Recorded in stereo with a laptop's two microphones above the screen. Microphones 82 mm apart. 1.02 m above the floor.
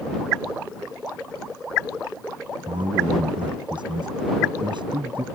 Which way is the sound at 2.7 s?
70° right (ahead or behind).